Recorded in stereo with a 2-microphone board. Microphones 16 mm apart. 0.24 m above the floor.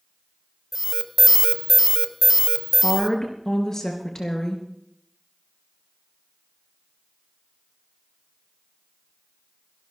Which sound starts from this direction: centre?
An alarm, at 0.7 s.